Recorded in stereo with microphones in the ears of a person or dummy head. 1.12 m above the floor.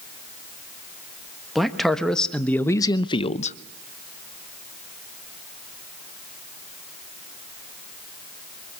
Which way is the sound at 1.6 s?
Centre (ahead or behind).